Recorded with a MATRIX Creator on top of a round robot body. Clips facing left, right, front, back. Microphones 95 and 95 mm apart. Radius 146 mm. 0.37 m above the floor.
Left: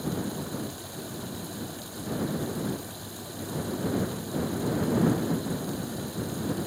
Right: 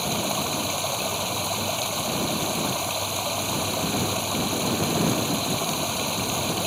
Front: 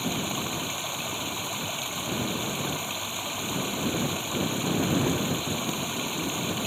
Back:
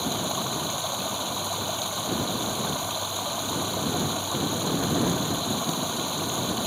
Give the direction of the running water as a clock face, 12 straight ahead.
4 o'clock.